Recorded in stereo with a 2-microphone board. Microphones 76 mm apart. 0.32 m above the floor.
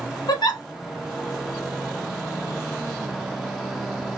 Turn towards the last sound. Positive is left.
turn(degrees=70)  # may be behind; listen again after turning